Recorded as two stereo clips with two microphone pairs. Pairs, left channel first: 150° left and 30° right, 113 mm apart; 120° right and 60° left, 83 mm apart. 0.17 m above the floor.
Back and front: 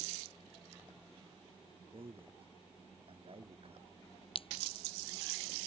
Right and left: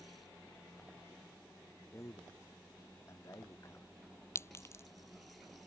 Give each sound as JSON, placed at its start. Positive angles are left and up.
{"t": 1.9, "sound": "a man speaking", "azimuth_deg": -70}
{"t": 4.3, "sound": "a clink", "azimuth_deg": 180}